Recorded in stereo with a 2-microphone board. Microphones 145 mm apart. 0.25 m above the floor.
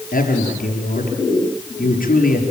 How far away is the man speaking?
About 5.5 m.